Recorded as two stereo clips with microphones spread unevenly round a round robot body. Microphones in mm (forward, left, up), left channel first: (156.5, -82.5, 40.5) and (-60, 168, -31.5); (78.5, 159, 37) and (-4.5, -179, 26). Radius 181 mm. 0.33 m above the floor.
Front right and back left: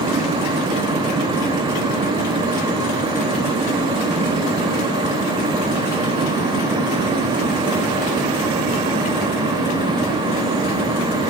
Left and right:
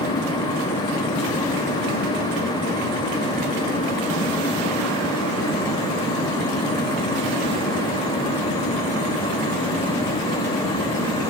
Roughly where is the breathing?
I don't hear breathing.